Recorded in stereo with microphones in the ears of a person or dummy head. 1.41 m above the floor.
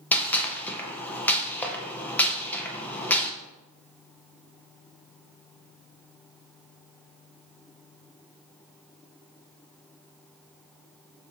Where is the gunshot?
15° left (ahead or behind), 0.8 m.